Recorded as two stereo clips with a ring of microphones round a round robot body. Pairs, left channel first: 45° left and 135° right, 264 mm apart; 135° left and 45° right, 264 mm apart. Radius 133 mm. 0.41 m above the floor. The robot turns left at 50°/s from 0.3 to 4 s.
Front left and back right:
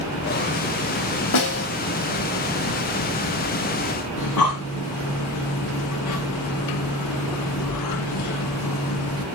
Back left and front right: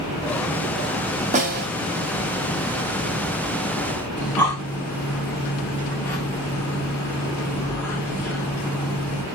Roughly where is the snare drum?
Ahead.